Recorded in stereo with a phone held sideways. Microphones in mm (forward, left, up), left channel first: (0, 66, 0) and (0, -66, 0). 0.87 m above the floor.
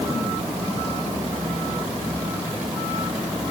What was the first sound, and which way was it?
Only background noise.